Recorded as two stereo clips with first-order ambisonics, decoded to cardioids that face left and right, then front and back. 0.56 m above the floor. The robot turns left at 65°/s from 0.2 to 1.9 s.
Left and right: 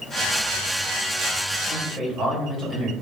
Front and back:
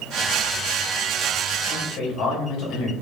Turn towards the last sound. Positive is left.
turn(degrees=-25)